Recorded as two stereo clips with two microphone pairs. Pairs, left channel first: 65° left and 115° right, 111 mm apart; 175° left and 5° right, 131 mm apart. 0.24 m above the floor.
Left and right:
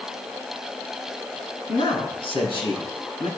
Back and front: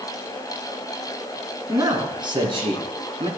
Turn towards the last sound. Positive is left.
turn(degrees=30)